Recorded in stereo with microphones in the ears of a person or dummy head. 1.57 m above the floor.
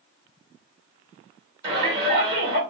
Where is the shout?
25° right (ahead or behind), 1.4 m.